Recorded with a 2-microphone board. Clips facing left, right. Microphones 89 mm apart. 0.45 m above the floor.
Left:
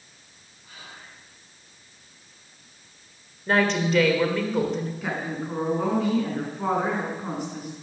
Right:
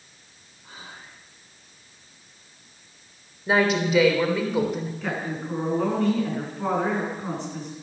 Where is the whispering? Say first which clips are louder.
Right 2 dB; 35° right (ahead or behind), 6 m.